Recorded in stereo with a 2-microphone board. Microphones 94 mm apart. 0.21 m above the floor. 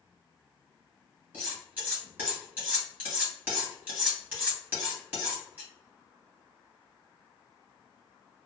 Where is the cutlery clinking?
15° right (ahead or behind), 1.7 m.